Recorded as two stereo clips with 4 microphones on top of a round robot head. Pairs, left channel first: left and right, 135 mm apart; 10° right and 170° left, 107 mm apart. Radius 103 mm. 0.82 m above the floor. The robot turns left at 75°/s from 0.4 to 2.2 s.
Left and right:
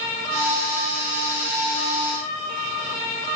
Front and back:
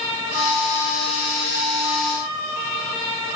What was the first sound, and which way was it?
Only background noise.